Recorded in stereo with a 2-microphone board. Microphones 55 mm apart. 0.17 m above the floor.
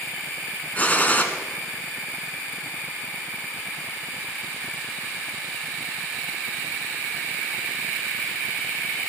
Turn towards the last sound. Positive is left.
turn(degrees=25)  # may be behind; listen again after turning